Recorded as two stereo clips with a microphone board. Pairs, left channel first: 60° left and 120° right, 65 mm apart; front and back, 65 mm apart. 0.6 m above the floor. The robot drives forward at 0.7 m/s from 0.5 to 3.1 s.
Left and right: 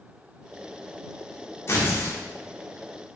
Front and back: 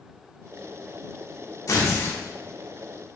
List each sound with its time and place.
1.7 s tearing paper: 20° left, 1.0 m; by 2.2 s 35° left, 0.7 m